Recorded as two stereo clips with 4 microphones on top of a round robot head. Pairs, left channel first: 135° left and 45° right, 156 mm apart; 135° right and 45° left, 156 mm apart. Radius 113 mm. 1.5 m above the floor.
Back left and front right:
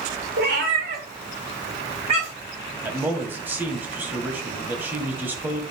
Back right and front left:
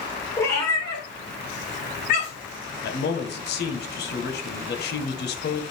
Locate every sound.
0.4 s a cat meowing: 60° right, 2.0 m; by 2.6 s 100° right, 2 m
2.8 s a man speaking: 125° right, 1.5 m